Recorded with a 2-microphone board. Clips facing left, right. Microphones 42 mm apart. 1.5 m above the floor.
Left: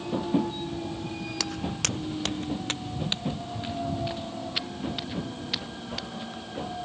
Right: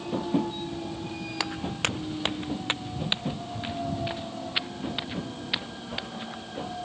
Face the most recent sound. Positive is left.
turn(degrees=-25)  # may be behind; listen again after turning